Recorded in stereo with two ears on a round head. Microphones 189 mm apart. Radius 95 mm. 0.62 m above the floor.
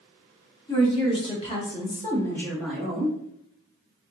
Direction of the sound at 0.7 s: 25° left (ahead or behind).